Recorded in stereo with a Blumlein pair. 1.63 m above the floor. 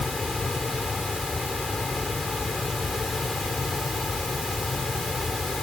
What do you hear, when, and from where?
0.0 s a fan: 10° left